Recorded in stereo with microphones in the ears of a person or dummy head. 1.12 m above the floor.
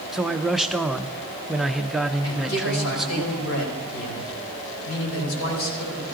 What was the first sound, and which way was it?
A man speaking, 5° left (ahead or behind).